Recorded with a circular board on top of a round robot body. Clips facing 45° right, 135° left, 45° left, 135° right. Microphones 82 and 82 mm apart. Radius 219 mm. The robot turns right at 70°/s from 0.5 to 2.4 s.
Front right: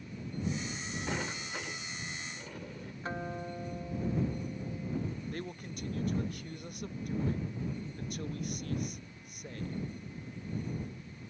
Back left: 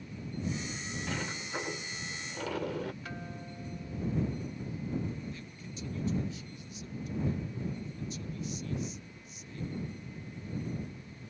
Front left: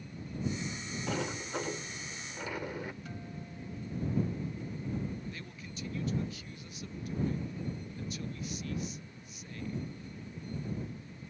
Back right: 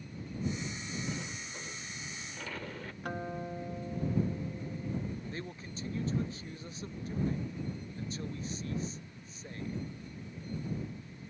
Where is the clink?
No clink in this recording.